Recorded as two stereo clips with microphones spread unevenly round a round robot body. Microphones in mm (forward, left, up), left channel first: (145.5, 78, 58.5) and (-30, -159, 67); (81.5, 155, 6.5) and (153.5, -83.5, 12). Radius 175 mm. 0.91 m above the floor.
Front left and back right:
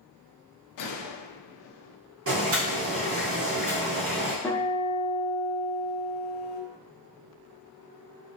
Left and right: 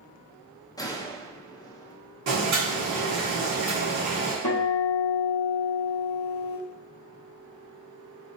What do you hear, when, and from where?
0.8 s a gunshot: 30° left, 0.8 m
2.3 s boiling: 85° right, 2 m
4.4 s a guitar: 140° left, 0.7 m